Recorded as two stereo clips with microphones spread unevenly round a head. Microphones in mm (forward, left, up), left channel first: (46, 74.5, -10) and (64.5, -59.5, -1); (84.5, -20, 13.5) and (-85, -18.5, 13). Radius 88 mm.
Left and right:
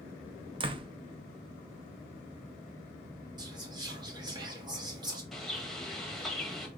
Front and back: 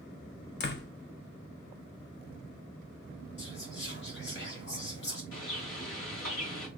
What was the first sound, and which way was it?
A door slam, 30° right.